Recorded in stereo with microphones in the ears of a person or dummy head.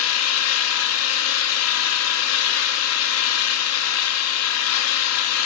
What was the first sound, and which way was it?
An engine running, 75° left (ahead or behind).